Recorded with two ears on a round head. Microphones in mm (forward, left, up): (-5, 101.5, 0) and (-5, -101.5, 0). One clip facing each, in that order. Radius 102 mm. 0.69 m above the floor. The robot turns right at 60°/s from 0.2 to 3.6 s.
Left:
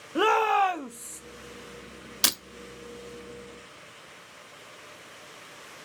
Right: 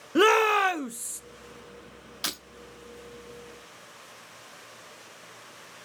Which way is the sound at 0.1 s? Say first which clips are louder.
Right 3 dB; 30° right (ahead or behind).